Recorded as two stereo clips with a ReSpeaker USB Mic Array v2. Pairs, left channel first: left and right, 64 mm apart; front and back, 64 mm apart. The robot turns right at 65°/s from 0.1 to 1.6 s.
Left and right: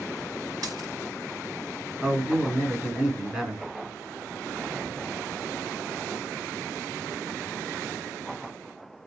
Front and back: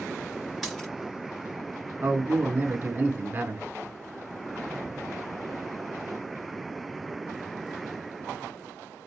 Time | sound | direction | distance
0.6 | a dropped coin | 85° right | 2.5 m
2.0 | a man speaking | 155° right | 1.0 m